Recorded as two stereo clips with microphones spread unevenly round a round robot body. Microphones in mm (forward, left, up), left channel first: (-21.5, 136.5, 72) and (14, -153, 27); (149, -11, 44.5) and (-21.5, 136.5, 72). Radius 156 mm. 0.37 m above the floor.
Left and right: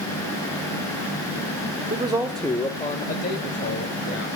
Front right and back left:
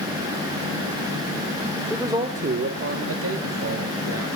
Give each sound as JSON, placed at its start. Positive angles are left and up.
{"t": 1.9, "sound": "a man speaking", "azimuth_deg": -125, "distance_m": 1.3}